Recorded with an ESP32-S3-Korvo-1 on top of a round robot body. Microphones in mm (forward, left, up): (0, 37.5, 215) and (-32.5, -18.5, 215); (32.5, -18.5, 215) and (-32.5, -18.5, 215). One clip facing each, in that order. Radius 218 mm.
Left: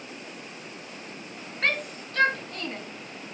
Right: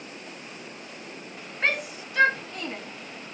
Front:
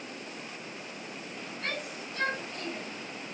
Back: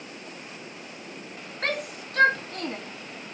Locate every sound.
1.6 s a shout: 160° left, 2.5 m